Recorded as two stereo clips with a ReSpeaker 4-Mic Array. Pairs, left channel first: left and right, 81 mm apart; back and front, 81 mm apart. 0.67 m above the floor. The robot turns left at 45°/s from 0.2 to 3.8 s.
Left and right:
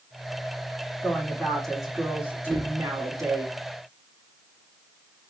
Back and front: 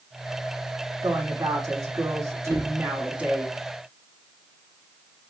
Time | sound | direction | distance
1.0 | a woman speaking | 30° left | 1.4 m
2.5 | a cupboard door | straight behind | 0.7 m